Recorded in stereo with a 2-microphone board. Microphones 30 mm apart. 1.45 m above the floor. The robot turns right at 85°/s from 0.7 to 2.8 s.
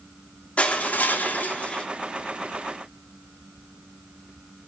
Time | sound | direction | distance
0.6 | crushing | 45° left | 3 m